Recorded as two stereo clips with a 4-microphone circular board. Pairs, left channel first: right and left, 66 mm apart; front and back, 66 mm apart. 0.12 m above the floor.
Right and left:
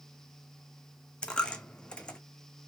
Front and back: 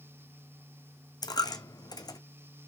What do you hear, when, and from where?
1.2 s a dropped coin: 15° right, 0.9 m